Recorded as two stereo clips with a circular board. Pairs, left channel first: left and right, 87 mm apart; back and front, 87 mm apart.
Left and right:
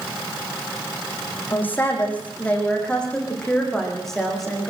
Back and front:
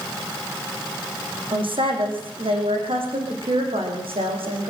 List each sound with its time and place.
1.5 s a woman speaking: 20° left, 7 m; by 4.7 s straight ahead, 9 m